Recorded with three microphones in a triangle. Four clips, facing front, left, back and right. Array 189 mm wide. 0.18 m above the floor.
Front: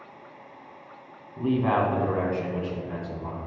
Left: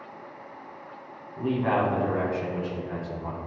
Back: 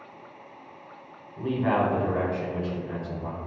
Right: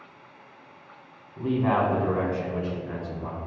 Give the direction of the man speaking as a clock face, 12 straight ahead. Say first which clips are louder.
Right 1 dB, front 1 dB; 12 o'clock.